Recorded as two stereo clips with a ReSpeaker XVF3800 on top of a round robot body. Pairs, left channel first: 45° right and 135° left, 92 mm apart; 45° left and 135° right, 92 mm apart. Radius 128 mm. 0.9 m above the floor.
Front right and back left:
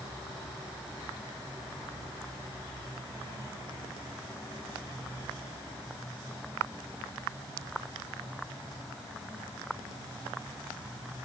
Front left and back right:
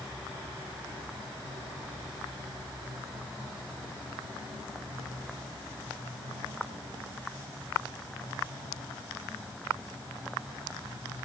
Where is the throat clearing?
I don't hear throat clearing.